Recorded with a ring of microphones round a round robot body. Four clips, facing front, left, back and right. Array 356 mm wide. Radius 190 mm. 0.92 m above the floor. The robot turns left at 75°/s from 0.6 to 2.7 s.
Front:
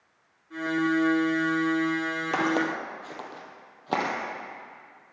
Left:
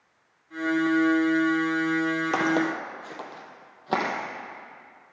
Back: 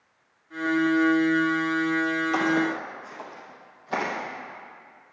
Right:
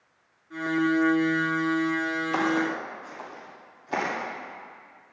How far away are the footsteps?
About 1.8 m.